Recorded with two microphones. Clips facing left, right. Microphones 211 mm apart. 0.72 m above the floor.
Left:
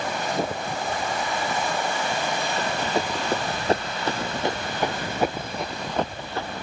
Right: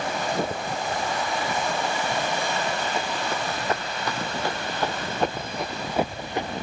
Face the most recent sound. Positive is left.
turn(degrees=-25)  # may be behind; listen again after turning